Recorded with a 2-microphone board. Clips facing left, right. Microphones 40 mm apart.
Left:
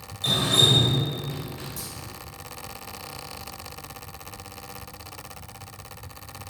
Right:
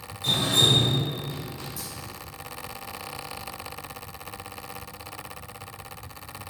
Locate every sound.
0.2 s dripping: 60° left (ahead or behind), 2.5 m